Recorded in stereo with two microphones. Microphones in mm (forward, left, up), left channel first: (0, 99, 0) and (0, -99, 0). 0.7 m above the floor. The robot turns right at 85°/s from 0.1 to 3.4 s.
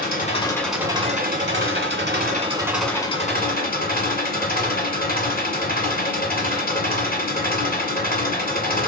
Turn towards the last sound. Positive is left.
turn(degrees=50)